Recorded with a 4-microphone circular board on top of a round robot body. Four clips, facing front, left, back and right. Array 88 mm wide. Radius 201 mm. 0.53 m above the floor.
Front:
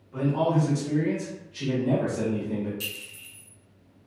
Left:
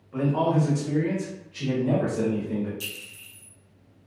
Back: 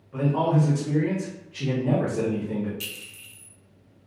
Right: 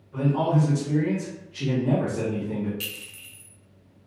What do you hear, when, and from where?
0.1 s a man speaking: 110° left, 1.2 m; by 2.7 s 160° right, 1.6 m
2.8 s a clink: 95° right, 0.5 m